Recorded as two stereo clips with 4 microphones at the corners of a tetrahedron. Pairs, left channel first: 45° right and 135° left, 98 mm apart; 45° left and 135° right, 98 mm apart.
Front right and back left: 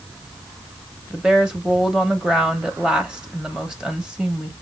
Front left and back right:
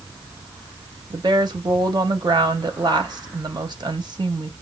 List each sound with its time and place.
1.1 s a woman speaking: 145° right, 1.0 m